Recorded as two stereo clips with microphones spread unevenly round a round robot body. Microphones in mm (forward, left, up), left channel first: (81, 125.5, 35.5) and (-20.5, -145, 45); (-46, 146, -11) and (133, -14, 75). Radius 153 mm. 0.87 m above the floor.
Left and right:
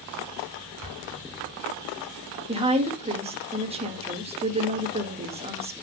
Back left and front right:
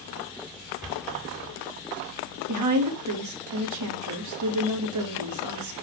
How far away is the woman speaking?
About 1.6 m.